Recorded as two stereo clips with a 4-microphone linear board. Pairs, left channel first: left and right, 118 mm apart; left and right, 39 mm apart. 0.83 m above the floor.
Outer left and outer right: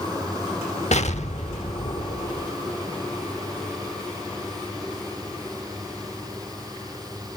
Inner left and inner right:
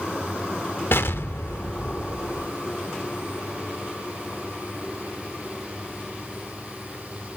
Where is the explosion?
75° left (ahead or behind), 1.0 m.